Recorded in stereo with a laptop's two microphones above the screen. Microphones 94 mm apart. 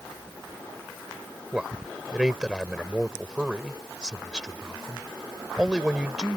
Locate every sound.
1.5 s a man speaking: 10° right (ahead or behind)